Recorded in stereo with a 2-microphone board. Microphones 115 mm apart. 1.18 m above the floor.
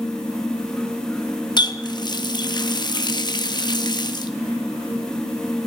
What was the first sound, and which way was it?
A running tap, 40° left (ahead or behind).